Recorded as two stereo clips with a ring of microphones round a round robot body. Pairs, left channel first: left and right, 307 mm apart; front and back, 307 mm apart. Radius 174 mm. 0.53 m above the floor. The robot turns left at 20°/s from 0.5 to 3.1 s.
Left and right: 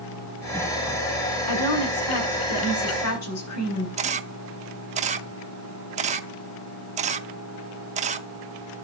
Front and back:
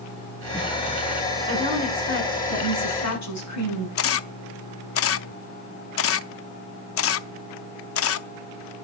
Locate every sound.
1.5 s a woman speaking: 75° left, 7 m; by 3.9 s 45° left, 7 m
4.0 s a camera shutter: 30° right, 0.7 m